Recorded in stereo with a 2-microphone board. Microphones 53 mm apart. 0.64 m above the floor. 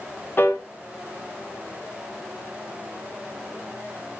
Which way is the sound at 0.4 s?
35° left (ahead or behind).